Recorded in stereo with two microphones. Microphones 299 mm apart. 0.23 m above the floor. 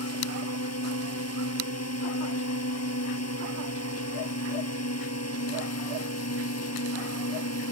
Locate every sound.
0.0 s a drone: 55° left (ahead or behind)